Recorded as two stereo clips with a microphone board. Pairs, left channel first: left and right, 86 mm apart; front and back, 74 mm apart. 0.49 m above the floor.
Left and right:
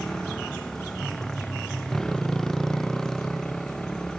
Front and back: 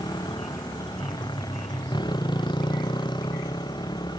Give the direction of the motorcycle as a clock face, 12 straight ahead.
12 o'clock.